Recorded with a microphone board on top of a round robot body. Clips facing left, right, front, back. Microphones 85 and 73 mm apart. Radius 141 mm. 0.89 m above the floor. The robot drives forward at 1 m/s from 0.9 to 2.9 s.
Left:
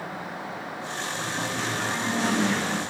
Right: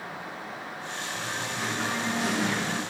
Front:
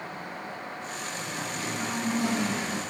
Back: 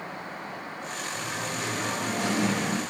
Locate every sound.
1.1 s singing: 175° right, 2 m